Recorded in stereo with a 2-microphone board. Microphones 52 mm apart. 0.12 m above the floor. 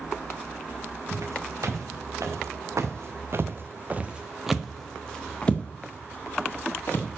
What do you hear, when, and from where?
1.1 s footsteps: 90° right, 4.5 m; by 7.1 s 40° left (ahead or behind), 4.5 m